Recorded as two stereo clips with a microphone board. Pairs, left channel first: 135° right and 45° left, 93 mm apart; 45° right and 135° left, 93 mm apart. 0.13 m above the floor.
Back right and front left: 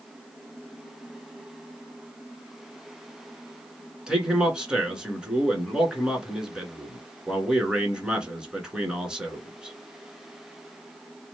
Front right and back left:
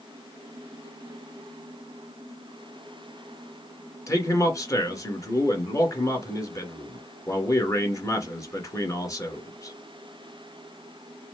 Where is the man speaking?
30° right, 1.7 m.